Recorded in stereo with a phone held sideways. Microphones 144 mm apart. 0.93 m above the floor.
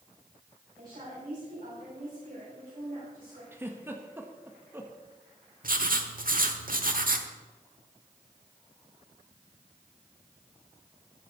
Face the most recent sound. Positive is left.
turn(degrees=-70)  # may be behind; listen again after turning